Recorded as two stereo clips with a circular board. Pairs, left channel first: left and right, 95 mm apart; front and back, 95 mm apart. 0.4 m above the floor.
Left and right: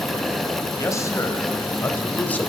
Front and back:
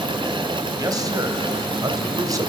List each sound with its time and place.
0.8 s a man speaking: 140° left, 2.5 m; by 2.5 s 160° left, 1.7 m